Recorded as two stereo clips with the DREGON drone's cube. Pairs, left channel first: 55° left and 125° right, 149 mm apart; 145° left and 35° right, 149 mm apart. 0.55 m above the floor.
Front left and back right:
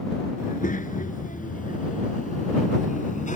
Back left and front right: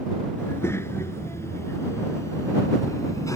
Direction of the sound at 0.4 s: 75° left.